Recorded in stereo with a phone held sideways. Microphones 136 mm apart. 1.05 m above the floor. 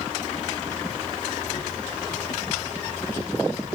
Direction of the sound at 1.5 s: 45° left (ahead or behind).